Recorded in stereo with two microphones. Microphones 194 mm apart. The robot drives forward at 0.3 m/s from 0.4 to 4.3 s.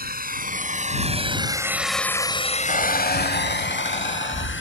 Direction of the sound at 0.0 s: 50° right (ahead or behind).